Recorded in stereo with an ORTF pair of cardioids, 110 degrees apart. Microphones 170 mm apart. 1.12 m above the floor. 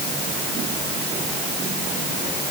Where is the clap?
No clap in this recording.